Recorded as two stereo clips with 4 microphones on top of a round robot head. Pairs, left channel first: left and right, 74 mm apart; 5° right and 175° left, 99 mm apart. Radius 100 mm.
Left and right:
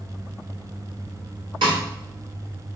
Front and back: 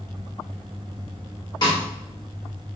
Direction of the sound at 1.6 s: 55° right.